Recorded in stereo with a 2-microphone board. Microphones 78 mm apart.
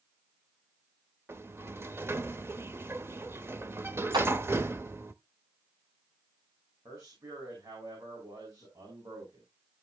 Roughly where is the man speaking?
Right.